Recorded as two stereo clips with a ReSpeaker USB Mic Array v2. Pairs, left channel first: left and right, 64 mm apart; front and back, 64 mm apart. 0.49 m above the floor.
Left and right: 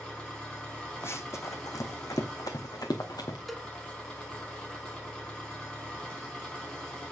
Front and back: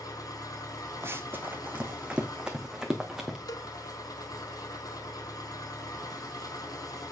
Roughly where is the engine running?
Ahead.